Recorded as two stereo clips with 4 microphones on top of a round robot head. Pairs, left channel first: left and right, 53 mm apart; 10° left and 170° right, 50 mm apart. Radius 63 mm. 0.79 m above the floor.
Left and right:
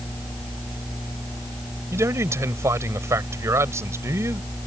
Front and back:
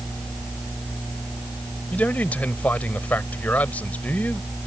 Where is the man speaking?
55° right.